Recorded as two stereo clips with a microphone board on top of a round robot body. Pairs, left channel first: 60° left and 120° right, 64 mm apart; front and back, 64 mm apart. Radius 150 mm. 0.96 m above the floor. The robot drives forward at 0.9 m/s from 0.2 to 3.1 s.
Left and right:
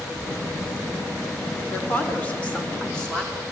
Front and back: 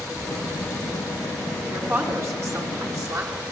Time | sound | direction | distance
1.7 | a woman speaking | 125° left | 3 m